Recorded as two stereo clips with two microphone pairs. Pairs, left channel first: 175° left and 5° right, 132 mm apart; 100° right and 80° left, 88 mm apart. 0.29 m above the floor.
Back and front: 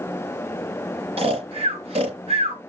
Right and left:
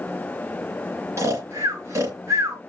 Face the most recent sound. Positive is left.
turn(degrees=30)